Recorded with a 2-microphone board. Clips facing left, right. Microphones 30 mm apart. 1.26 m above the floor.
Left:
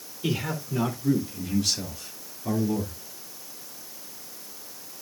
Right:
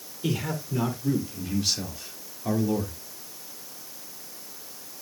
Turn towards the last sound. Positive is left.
turn(degrees=-35)  # may be behind; listen again after turning